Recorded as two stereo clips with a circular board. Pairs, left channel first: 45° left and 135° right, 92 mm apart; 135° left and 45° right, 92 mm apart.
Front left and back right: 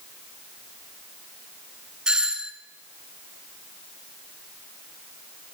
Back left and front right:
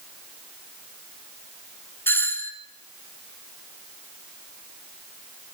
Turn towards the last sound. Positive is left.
turn(degrees=155)